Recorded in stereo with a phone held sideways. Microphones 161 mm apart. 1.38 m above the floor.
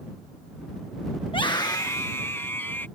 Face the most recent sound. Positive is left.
turn(degrees=15)  # may be behind; listen again after turning